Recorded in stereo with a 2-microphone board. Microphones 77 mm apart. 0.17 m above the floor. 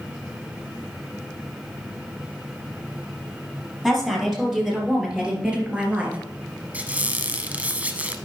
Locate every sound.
3.8 s a woman speaking: 5° right (ahead or behind), 4 m; by 6.2 s 20° right (ahead or behind), 2.5 m
6.7 s a squeak: 20° right (ahead or behind), 1.0 m